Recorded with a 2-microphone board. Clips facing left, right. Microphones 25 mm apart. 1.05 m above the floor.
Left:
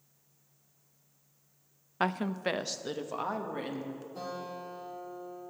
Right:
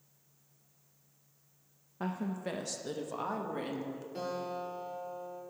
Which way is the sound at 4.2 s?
55° right (ahead or behind).